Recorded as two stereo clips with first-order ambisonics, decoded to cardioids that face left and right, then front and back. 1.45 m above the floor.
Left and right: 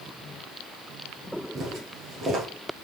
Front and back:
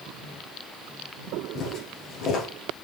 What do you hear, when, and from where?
1.6 s footsteps: 40° right, 1.8 m